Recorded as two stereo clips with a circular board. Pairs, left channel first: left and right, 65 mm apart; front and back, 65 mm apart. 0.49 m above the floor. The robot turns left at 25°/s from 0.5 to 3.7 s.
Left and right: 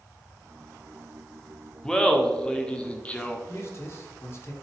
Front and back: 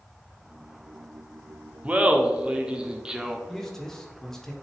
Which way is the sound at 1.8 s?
150° left.